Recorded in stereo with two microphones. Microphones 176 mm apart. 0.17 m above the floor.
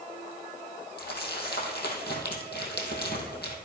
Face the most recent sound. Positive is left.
turn(degrees=75)  # may be behind; listen again after turning